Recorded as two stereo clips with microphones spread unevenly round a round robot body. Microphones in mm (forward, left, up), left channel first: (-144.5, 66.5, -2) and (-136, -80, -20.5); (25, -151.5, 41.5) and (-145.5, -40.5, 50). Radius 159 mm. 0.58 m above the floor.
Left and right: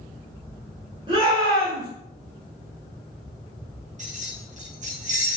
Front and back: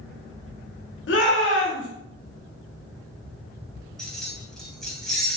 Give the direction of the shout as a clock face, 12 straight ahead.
1 o'clock.